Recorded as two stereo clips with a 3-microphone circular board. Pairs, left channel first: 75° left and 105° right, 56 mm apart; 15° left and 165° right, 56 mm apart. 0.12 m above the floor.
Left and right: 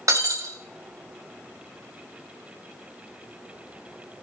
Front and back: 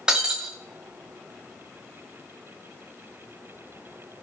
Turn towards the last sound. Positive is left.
turn(degrees=-90)